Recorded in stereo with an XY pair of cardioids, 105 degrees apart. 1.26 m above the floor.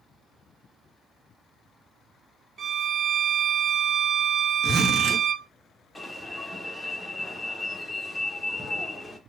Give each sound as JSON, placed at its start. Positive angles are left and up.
{"t": 2.6, "sound": "a violin", "azimuth_deg": -40, "distance_m": 0.7}
{"t": 4.6, "sound": "a zipper", "azimuth_deg": -50, "distance_m": 1.5}
{"t": 6.0, "sound": "an alarm", "azimuth_deg": 0, "distance_m": 1.1}